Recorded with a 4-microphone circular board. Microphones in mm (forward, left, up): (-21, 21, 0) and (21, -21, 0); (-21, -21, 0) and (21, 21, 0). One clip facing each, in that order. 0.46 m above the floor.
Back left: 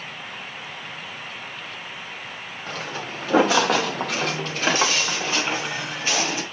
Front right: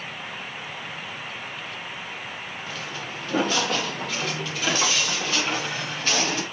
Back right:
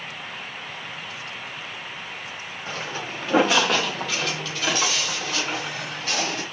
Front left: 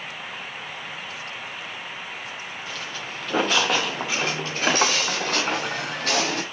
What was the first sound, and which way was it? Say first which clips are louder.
Footsteps: back left 6 dB, back right 6 dB; 165° left.